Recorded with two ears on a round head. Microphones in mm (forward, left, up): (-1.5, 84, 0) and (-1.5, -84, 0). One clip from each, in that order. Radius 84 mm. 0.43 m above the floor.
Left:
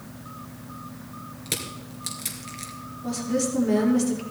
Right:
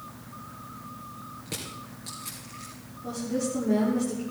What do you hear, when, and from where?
1.5 s crushing: 65° left (ahead or behind), 3 m
3.0 s a woman speaking: 80° left, 6 m